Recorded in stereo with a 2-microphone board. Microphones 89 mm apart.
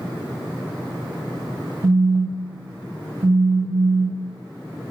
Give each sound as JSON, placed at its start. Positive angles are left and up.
{"t": 1.8, "sound": "a phone buzzing", "side_deg": -20, "distance_m": 1.4}